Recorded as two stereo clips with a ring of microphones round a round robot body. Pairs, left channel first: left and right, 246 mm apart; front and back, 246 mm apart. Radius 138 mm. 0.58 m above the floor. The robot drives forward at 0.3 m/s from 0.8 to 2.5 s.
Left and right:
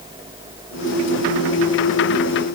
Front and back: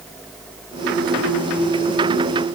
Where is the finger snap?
No finger snap in this recording.